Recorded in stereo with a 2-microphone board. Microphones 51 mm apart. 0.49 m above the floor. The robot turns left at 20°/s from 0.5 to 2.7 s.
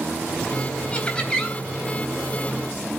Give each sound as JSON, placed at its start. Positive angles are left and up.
{"t": 0.9, "sound": "laughter", "side_deg": 25, "distance_m": 3.5}